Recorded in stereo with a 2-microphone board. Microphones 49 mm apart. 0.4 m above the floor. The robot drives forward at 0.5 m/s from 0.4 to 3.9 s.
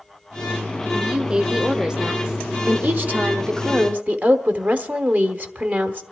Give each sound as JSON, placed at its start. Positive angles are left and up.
{"t": 0.9, "sound": "a woman speaking", "side_deg": -20, "distance_m": 1.0}
{"t": 2.7, "sound": "a woman speaking", "side_deg": -35, "distance_m": 1.0}